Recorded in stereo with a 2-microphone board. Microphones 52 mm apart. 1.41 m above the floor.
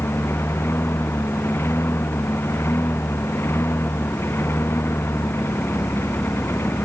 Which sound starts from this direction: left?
A lawn mower, at 0.0 s.